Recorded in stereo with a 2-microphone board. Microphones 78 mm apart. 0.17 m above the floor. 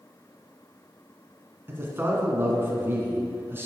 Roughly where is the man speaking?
Right.